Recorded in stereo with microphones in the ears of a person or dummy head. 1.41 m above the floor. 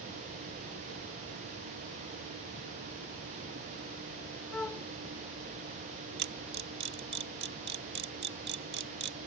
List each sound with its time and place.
4.5 s a flute: 10° left (ahead or behind)
6.2 s a camera shutter: 50° right (ahead or behind)